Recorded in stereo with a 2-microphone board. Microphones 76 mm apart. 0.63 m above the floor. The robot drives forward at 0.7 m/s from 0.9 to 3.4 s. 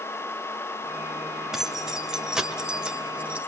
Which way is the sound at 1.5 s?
10° right (ahead or behind).